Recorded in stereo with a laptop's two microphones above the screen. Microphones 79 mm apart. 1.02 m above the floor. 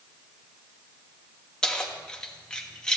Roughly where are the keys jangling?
Centre.